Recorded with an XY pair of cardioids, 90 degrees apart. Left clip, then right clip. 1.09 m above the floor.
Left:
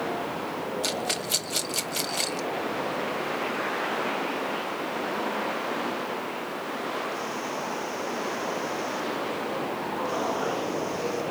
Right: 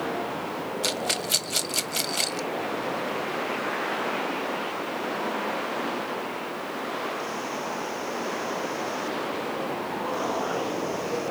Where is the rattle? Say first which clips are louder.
Right 3 dB; 20° right, 0.5 m.